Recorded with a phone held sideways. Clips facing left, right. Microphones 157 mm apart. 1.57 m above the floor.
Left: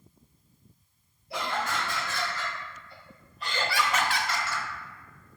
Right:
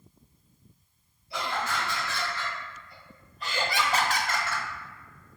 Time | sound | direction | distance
1.3 | laughter | 55° left (ahead or behind) | 1.3 m